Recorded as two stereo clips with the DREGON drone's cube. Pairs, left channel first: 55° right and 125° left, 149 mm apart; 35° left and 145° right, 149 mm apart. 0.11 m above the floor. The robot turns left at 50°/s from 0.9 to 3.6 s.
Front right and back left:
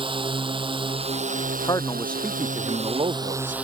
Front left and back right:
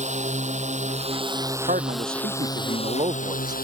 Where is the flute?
No flute in this recording.